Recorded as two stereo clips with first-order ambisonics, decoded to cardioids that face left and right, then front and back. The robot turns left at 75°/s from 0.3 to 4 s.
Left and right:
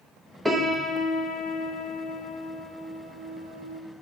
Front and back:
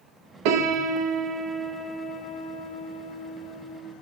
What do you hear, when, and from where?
0.5 s a piano: straight behind, 0.6 m; by 3.8 s 70° right, 0.6 m